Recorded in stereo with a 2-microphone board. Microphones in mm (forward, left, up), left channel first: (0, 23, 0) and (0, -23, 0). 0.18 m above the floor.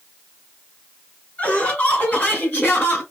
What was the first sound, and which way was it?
Laughter, 30° left (ahead or behind).